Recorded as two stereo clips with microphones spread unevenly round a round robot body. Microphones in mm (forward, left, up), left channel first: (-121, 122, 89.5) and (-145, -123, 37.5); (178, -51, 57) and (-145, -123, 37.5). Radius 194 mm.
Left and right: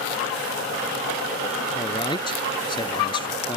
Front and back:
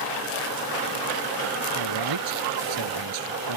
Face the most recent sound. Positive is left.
turn(degrees=155)